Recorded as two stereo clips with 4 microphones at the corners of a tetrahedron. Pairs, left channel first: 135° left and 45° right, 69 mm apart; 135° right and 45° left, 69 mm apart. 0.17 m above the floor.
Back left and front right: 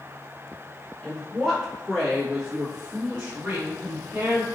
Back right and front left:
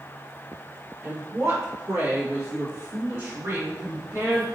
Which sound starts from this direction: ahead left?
A woman speaking, at 1.0 s.